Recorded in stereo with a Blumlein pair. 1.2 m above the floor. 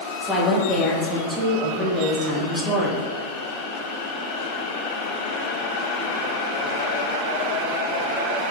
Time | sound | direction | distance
0.2 | a woman speaking | 5° left | 0.9 m